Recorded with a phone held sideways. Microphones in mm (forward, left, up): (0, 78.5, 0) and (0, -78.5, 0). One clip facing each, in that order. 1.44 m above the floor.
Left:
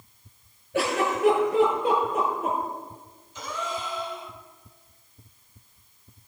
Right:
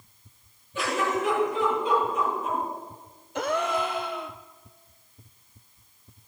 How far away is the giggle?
About 9 m.